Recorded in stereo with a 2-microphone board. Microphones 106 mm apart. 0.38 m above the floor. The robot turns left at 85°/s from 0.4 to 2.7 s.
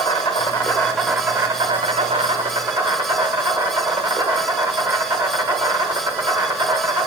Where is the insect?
60° left, 1.0 m; by 7.1 s 135° right, 1.0 m.